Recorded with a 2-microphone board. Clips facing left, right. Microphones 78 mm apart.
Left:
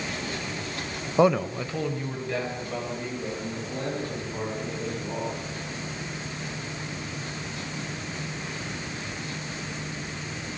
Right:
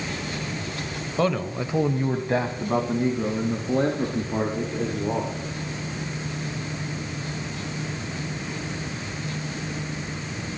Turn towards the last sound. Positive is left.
turn(degrees=-65)  # may be behind; listen again after turning